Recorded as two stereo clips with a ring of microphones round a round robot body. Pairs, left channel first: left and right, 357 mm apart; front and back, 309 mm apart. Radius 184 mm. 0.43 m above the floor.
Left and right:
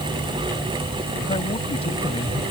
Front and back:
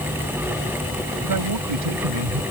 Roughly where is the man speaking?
Behind.